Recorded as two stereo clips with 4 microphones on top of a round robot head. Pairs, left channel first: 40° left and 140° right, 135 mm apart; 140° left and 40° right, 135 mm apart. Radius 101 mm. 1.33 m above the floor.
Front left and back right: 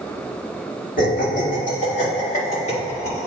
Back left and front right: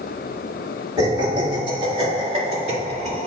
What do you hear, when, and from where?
1.0 s laughter: 20° left, 3 m; by 3.3 s straight ahead, 3.5 m